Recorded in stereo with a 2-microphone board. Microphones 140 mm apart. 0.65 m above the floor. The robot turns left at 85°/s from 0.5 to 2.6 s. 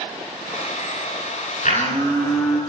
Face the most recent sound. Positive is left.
turn(degrees=-15)